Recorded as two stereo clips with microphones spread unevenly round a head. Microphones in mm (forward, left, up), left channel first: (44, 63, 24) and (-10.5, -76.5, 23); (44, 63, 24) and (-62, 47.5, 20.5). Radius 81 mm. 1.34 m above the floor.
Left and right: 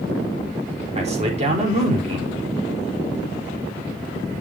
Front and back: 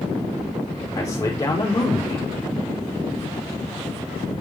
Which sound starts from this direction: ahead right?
A man speaking, at 0.9 s.